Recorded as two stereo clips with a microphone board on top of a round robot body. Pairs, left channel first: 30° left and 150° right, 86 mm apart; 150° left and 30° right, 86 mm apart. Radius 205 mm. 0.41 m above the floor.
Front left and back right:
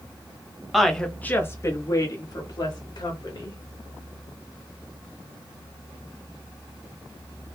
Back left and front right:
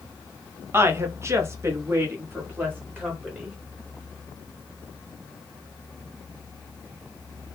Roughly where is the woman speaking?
Ahead right.